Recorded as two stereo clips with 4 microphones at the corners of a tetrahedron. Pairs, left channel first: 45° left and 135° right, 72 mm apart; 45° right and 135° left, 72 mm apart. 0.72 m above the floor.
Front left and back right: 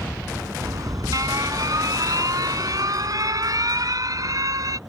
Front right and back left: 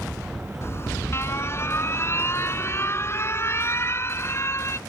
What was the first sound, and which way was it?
An alarm, 100° right.